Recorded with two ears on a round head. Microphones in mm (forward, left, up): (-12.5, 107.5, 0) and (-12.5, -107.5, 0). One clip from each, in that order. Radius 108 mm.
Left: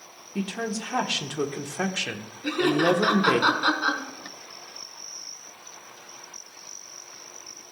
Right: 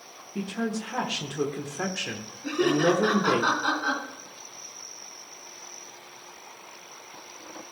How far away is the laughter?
About 4.5 m.